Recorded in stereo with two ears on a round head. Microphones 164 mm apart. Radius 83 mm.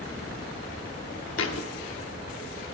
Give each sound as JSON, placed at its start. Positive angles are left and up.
{"t": 1.4, "sound": "a thud", "side_deg": 80, "distance_m": 1.3}